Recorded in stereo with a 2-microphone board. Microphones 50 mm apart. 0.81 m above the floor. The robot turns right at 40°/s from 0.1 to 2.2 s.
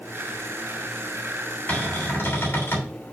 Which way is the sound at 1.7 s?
30° left (ahead or behind).